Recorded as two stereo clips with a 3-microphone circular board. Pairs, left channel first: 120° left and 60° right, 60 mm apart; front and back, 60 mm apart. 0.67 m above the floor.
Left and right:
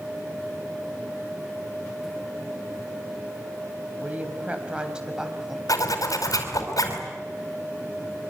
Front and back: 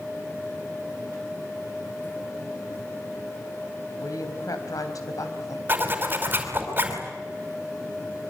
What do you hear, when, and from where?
4.0 s a woman speaking: straight ahead, 3.5 m; by 5.6 s 25° left, 3.5 m
5.7 s a zipper: 125° left, 5 m